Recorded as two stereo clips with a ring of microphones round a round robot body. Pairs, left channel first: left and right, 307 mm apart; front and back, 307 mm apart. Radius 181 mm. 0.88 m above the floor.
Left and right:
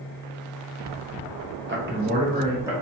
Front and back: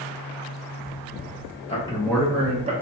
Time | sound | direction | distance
1.7 | a man speaking | 60° right | 1.0 m